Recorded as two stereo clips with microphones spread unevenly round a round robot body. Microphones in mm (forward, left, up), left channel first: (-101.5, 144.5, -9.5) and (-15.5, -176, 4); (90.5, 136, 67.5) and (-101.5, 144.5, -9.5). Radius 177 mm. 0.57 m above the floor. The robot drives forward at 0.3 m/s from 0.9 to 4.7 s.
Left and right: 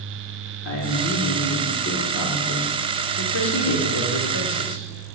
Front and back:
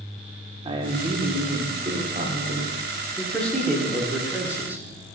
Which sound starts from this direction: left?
A man speaking, at 3.2 s.